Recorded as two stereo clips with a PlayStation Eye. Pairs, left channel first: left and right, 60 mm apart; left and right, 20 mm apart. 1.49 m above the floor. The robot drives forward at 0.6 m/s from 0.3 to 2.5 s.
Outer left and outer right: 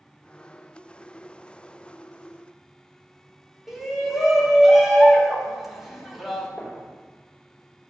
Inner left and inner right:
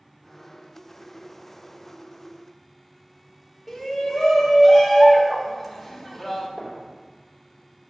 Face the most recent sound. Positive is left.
turn(degrees=25)  # may be behind; listen again after turning